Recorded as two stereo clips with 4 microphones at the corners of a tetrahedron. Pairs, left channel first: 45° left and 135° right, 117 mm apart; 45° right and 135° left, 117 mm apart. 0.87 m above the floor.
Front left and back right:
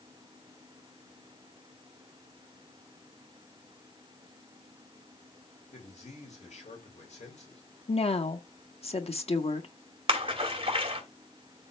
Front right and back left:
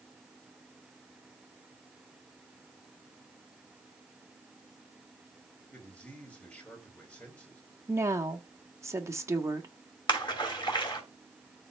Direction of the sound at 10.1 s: 95° right.